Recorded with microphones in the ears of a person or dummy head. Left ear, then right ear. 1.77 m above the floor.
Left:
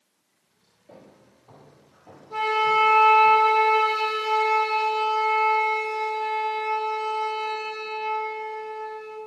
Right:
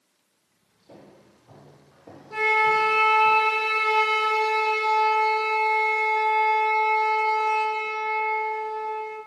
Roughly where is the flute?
Right.